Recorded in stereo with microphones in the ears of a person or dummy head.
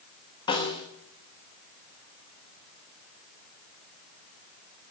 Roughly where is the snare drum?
Centre.